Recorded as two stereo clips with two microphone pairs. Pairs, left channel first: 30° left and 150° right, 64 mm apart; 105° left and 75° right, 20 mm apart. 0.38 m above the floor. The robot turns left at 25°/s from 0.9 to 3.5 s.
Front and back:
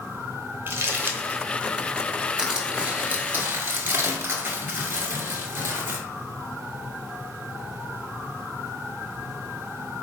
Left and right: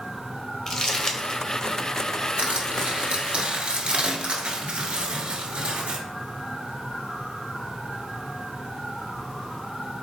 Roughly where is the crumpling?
Behind.